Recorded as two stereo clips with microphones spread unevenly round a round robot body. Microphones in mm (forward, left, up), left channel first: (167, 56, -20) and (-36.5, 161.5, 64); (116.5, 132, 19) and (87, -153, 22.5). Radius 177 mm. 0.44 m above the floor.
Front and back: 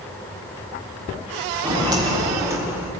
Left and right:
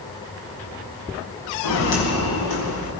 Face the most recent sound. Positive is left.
turn(degrees=75)